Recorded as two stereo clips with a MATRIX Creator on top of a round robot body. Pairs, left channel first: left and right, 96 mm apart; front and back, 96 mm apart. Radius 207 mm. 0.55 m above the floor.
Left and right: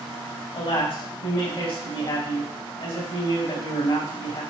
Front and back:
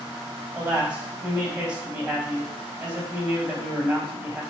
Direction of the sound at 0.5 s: 105° left.